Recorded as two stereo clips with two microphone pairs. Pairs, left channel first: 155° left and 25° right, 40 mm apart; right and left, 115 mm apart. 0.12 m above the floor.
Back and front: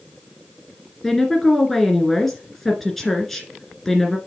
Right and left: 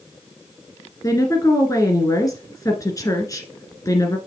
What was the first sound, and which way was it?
A woman speaking, 120° right.